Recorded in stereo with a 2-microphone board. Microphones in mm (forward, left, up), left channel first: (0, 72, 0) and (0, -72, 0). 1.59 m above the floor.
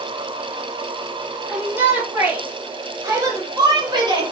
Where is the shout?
10° right (ahead or behind), 4 m; by 4.3 s 35° right (ahead or behind), 3 m.